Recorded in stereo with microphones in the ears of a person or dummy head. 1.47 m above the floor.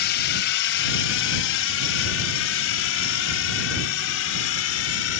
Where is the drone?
60° left (ahead or behind); by 5.2 s 80° left.